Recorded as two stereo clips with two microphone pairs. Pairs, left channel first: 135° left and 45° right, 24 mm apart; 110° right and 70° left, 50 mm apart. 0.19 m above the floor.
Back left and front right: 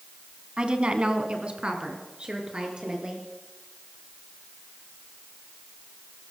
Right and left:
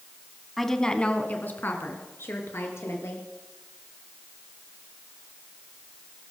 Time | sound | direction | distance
0.6 | a woman speaking | 25° right | 1.4 m